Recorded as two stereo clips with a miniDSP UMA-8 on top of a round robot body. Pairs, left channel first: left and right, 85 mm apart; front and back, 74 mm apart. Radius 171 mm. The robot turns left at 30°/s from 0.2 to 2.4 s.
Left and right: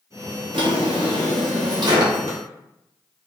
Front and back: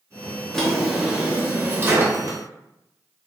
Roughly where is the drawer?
Right.